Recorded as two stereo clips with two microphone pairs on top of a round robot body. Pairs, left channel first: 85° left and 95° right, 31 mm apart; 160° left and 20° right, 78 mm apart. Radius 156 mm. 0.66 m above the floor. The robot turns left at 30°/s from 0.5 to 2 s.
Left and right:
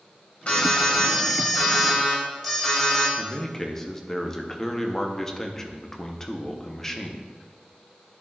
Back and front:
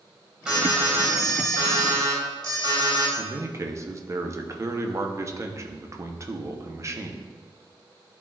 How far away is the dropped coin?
No dropped coin in this recording.